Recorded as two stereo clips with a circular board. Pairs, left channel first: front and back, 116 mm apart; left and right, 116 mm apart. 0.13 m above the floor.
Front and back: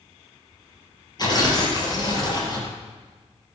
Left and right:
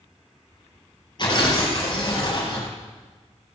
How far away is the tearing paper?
About 3 m.